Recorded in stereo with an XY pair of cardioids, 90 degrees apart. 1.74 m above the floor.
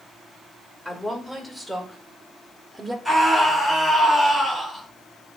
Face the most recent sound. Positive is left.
turn(degrees=0)